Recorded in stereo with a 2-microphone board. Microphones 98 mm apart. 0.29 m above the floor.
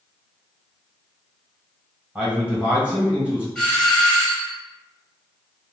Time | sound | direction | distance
2.1 | a man speaking | 15° right (ahead or behind) | 1.4 m
3.5 | a doorbell | 5° left (ahead or behind) | 1.5 m